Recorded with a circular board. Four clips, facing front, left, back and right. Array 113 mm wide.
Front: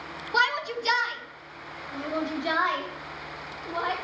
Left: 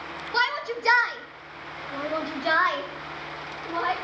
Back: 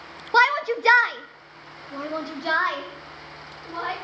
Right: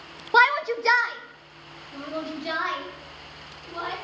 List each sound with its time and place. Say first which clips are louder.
0.3 s a shout: right 7 dB, back 6 dB; 130° right, 0.5 m; by 3.9 s 120° left, 1.7 m